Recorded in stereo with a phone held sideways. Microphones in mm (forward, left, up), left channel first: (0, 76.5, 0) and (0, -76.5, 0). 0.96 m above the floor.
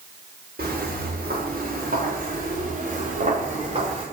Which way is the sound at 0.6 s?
80° right.